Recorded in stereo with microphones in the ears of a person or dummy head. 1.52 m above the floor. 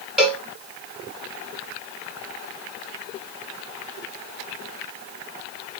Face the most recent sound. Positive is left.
turn(degrees=-5)  # may be behind; listen again after turning